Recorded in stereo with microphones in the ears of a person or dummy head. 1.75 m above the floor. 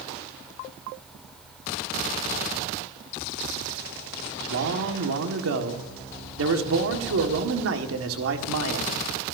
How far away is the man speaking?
About 1.6 m.